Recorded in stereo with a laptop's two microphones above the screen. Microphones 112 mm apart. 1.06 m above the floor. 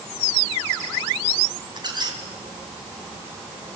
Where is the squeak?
40° right (ahead or behind), 3 m.